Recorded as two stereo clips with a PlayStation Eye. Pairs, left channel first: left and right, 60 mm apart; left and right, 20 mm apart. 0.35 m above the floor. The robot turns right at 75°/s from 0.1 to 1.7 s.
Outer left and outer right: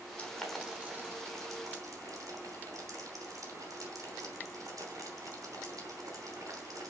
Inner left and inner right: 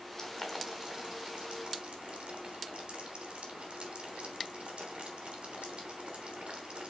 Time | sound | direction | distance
0.2 | boiling | 20° left (ahead or behind) | 3.5 m